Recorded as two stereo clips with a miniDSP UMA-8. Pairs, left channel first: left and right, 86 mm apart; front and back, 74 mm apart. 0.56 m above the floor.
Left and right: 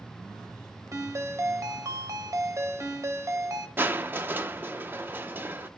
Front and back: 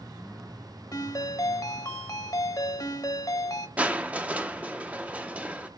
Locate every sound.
0.9 s a ringtone: 35° right, 1.1 m
3.8 s crushing: 125° right, 0.7 m